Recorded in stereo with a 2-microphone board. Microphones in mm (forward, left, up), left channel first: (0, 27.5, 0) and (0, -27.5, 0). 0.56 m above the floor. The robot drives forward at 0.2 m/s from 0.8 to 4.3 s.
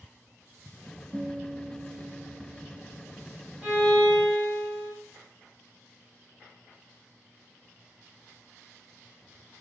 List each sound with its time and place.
1.1 s a guitar: 50° right (ahead or behind), 0.9 m; by 3.5 s 35° right (ahead or behind), 1.2 m
3.6 s a violin: 20° right (ahead or behind), 1.1 m; by 4.9 s 15° right (ahead or behind), 1.3 m